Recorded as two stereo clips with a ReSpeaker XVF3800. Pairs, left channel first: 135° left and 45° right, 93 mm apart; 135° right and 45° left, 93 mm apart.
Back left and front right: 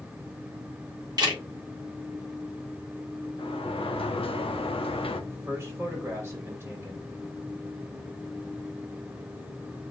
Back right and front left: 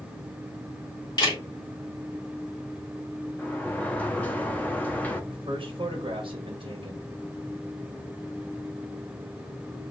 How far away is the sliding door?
About 0.8 m.